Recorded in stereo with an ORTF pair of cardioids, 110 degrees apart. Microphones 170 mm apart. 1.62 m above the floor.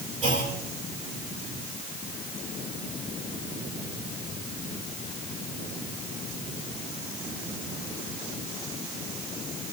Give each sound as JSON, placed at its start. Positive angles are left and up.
{"t": 0.2, "sound": "a clunk", "azimuth_deg": -40, "distance_m": 4.5}